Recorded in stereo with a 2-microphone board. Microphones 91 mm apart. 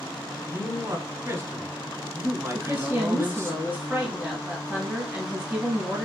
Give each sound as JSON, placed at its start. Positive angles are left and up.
{"t": 0.5, "sound": "a man speaking", "side_deg": -30, "distance_m": 1.3}
{"t": 2.5, "sound": "a woman speaking", "side_deg": -20, "distance_m": 1.7}